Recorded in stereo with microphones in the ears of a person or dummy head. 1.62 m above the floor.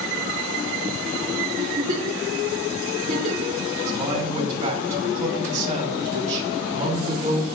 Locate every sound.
1.6 s a giggle: 40° right (ahead or behind), 4.5 m
3.9 s a man speaking: 40° right (ahead or behind), 4 m